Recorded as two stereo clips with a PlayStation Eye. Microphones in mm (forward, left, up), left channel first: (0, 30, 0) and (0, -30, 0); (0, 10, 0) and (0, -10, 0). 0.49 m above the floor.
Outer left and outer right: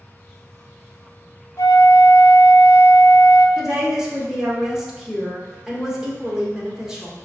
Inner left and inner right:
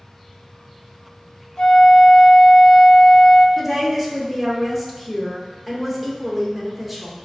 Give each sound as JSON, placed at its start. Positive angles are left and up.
{"t": 1.6, "sound": "a flute", "side_deg": 75, "distance_m": 0.7}
{"t": 3.6, "sound": "a woman speaking", "side_deg": -10, "distance_m": 0.9}